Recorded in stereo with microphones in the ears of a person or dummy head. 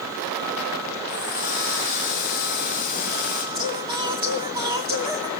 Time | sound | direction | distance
1.1 | a running tap | 45° left (ahead or behind) | 6.5 m
3.5 | singing | 15° right (ahead or behind) | 3 m